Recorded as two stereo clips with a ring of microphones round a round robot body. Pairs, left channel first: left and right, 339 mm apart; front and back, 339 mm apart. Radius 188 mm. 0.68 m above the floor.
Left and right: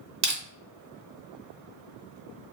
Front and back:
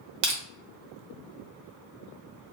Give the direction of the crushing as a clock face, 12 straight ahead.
6 o'clock.